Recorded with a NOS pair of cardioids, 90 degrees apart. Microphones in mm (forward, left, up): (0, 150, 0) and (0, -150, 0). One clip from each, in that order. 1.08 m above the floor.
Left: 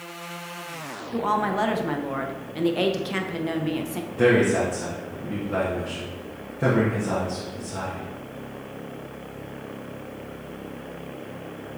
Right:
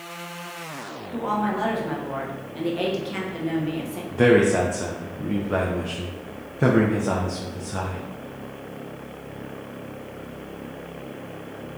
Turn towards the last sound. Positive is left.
turn(degrees=-25)